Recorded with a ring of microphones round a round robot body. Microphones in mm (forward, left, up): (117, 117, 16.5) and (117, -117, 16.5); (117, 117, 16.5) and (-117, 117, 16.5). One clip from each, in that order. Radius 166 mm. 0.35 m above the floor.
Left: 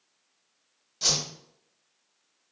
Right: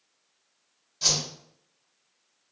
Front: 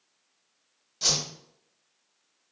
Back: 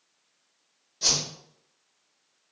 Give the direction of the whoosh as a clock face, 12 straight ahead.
11 o'clock.